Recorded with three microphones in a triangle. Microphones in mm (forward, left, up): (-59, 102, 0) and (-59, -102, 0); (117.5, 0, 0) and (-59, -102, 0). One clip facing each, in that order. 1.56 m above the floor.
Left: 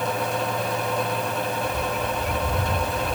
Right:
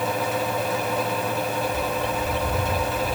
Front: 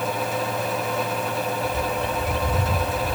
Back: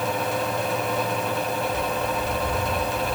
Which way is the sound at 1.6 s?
10° left.